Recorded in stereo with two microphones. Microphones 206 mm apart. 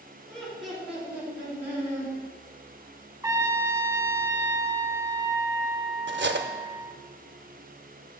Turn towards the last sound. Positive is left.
turn(degrees=-60)  # may be behind; listen again after turning